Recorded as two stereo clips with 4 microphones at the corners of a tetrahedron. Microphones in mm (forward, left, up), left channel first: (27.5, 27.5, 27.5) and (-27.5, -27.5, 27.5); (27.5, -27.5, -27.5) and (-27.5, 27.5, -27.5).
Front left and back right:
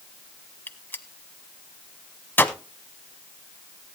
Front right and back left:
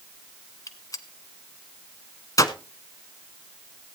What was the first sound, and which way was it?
A gunshot, 15° right.